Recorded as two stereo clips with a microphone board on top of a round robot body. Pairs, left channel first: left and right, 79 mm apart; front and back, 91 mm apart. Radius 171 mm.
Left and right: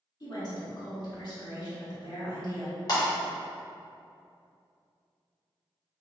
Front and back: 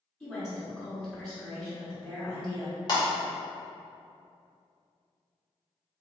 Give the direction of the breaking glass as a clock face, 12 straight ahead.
10 o'clock.